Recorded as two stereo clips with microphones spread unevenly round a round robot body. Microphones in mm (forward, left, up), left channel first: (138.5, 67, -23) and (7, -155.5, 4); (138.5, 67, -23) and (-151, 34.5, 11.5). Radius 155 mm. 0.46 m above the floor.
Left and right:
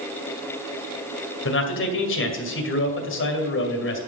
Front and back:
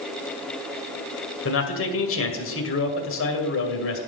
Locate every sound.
1.4 s a man speaking: 35° left, 2 m